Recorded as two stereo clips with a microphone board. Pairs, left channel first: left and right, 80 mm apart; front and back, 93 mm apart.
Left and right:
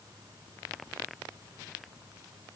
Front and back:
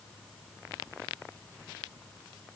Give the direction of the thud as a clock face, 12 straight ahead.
No thud in this recording.